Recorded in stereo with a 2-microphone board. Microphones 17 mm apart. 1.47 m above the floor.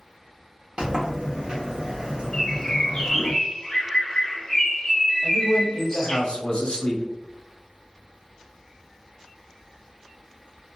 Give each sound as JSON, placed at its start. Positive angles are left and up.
{"t": 0.8, "sound": "a sliding door", "side_deg": -50, "distance_m": 1.1}
{"t": 2.3, "sound": "a bird", "side_deg": 25, "distance_m": 1.0}
{"t": 5.2, "sound": "a man speaking", "side_deg": 50, "distance_m": 0.9}